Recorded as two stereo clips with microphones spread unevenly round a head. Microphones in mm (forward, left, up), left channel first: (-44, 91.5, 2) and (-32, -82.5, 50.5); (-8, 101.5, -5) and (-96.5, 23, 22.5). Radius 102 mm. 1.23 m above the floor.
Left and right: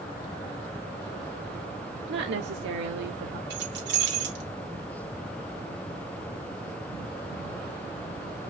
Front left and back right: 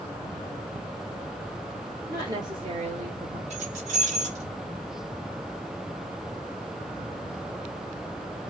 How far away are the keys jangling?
About 2 m.